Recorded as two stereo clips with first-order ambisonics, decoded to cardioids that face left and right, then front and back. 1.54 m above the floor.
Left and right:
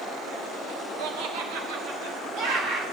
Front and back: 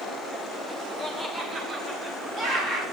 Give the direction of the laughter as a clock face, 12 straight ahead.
3 o'clock.